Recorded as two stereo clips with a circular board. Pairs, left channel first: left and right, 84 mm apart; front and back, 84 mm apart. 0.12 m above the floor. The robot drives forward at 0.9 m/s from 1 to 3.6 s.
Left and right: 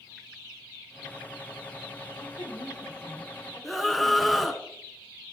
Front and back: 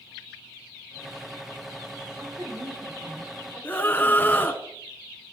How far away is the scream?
About 1.1 m.